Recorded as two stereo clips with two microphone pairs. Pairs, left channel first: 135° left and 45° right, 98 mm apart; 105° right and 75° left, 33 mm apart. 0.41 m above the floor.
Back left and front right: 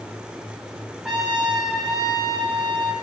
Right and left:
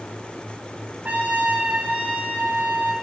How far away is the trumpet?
About 1.8 m.